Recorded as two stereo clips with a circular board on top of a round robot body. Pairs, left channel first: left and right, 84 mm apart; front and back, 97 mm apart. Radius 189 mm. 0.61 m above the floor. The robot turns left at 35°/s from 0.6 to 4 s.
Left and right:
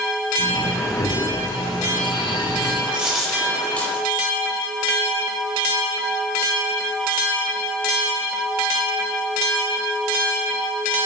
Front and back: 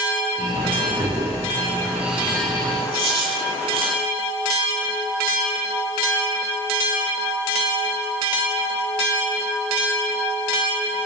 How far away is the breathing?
About 6.5 m.